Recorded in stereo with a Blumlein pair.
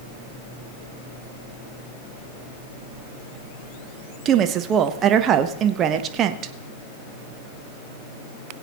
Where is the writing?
I don't hear writing.